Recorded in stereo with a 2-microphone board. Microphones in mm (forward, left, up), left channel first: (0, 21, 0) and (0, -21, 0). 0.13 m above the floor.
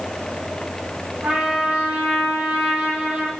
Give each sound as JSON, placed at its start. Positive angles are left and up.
{"t": 1.2, "sound": "a trumpet", "side_deg": -30, "distance_m": 3.0}